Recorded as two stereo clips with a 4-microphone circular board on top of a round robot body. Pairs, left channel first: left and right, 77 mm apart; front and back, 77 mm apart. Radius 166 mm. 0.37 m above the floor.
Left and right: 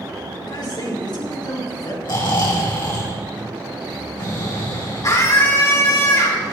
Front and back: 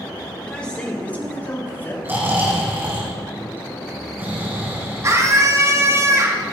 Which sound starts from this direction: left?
A man speaking, at 0.4 s.